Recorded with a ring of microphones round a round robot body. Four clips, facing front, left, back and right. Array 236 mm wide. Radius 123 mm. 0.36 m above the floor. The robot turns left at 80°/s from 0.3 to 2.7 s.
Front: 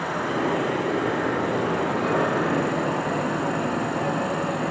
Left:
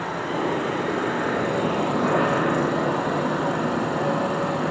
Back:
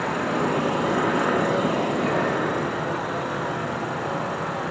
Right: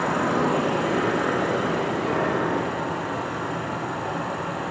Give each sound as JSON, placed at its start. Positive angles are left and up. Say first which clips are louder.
{"t": 0.0, "sound": "an insect", "louder": "right 3 dB, back 1 dB", "azimuth_deg": -110, "distance_m": 4.5}